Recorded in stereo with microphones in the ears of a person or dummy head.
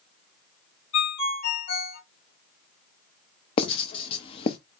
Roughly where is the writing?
Left.